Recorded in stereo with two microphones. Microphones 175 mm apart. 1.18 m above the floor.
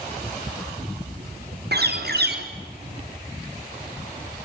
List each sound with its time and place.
1.7 s a bird: 75° right (ahead or behind), 3 m